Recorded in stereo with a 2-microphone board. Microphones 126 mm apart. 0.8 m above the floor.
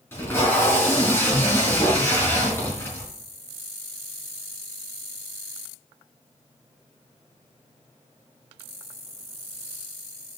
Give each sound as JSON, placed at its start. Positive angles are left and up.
{"t": 0.1, "sound": "tape being pulled", "side_deg": 20, "distance_m": 4.5}